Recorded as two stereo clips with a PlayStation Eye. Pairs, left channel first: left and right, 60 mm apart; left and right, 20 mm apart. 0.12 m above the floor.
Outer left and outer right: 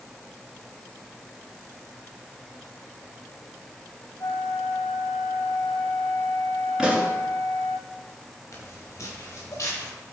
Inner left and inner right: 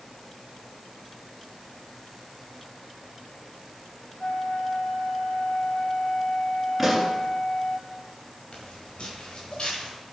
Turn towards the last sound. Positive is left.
turn(degrees=45)  # may be behind; listen again after turning